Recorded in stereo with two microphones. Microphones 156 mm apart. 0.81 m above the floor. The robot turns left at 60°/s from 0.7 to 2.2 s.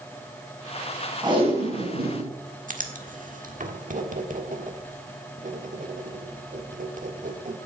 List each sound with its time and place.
1.2 s tape being pulled: 25° right, 4.5 m; by 2.3 s 85° right, 4.5 m
2.7 s writing: 55° right (ahead or behind), 1.4 m